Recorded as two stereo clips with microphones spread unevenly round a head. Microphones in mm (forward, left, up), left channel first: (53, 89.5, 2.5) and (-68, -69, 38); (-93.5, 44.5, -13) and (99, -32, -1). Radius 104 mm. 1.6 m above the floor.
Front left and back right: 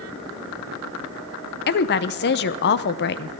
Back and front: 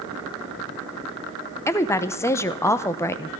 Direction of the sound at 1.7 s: 80° left.